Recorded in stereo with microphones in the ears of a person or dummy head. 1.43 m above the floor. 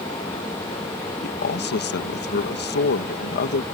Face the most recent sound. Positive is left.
turn(degrees=55)  # may be behind; listen again after turning